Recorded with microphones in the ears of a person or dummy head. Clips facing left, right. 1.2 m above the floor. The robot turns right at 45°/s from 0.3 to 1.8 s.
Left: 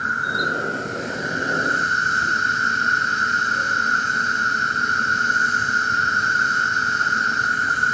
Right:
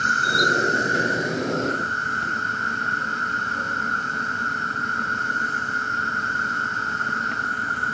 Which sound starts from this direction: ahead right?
An insect, at 0.0 s.